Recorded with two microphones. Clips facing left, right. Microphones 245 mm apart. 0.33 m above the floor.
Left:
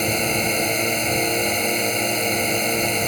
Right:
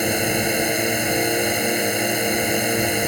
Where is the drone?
10° right (ahead or behind).